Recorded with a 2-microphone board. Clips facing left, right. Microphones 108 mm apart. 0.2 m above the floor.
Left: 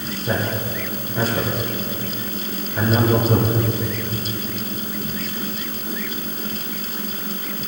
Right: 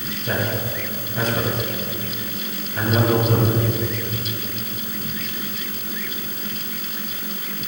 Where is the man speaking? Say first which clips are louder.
Left 1 dB; 10° left (ahead or behind), 4 m.